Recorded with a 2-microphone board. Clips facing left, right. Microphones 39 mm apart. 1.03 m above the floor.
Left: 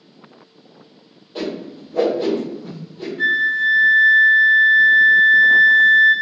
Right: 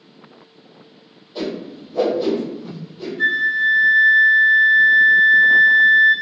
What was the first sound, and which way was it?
A whoosh, 55° left (ahead or behind).